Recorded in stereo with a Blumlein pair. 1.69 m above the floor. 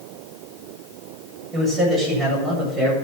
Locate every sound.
1.5 s a man speaking: 15° right, 8 m; by 3.0 s 10° right, 8.5 m